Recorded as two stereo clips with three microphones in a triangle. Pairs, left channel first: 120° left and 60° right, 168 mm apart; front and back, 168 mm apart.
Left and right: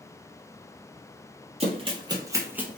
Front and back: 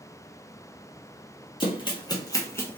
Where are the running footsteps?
40° right, 1.7 m; by 2.8 s 15° left, 1.3 m.